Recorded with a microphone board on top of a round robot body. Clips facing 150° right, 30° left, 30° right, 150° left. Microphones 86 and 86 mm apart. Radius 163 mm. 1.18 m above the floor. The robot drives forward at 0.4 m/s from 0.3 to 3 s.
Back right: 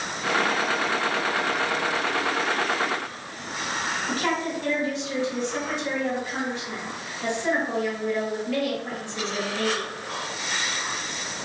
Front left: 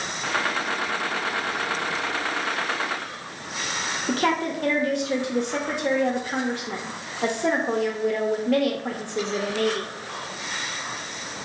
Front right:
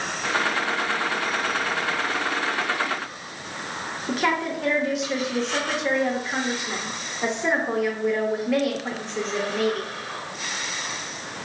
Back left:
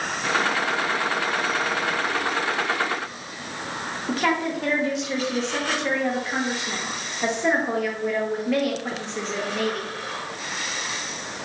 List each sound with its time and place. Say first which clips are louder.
4.1 s a woman speaking: front left 5 dB, even; 60° left, 0.7 m